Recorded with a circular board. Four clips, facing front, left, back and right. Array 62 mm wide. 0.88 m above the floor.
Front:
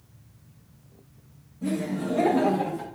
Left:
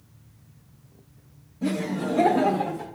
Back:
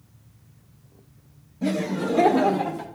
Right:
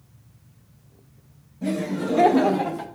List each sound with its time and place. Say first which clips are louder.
1.6 s laughter: right 1 dB, back 3 dB; straight behind, 1.1 m; by 2.9 s 100° right, 1.6 m